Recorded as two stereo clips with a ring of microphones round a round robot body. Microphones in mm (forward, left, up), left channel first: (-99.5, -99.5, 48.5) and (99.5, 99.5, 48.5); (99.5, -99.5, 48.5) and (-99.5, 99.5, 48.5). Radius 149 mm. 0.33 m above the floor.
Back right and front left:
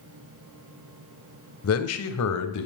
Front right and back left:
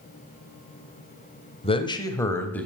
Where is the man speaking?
110° right, 1.6 m; by 2.7 s 130° right, 2.0 m.